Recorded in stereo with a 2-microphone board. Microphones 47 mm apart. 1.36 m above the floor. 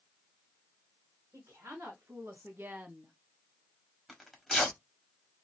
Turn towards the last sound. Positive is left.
turn(degrees=0)  # may be behind; listen again after turning